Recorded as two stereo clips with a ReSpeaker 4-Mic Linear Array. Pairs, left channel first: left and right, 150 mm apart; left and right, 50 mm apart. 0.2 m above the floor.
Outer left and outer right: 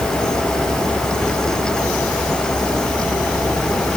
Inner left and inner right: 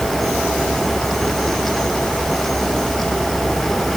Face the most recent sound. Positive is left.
No sound to turn to.